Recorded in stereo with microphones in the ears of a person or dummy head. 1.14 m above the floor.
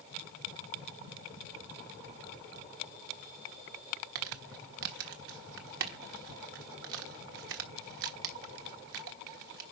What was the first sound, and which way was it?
Crumpling, 65° right (ahead or behind).